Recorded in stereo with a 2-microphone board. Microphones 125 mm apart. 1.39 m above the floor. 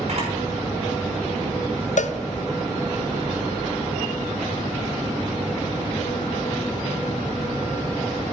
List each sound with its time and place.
0.1 s a camera shutter: 55° right (ahead or behind), 6 m
2.0 s a cowbell: 65° left (ahead or behind), 0.6 m